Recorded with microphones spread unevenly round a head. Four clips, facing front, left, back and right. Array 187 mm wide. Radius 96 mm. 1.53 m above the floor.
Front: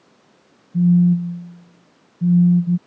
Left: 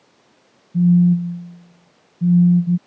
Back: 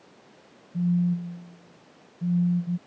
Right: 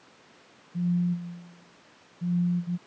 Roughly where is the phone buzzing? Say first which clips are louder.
Left 13 dB, front 10 dB; ahead left.